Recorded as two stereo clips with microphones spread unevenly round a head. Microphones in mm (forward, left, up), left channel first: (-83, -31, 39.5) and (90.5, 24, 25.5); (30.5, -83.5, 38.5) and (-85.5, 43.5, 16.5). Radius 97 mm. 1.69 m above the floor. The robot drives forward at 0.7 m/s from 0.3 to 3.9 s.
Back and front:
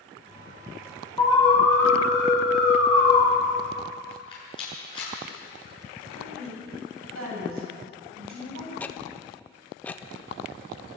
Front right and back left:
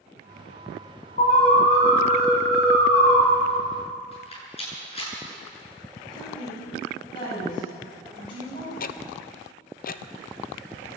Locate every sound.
1.2 s an alarm: 90° right, 8.5 m; by 3.2 s 100° right, 8.5 m
4.1 s a rattle: 100° right, 9 m
6.1 s a woman speaking: 15° left, 9.5 m
8.8 s ticking: 80° right, 0.8 m